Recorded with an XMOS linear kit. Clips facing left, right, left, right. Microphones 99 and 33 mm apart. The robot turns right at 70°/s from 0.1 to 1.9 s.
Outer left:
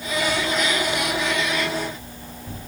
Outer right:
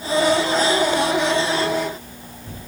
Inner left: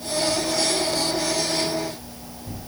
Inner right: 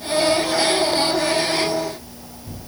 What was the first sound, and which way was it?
Only background noise.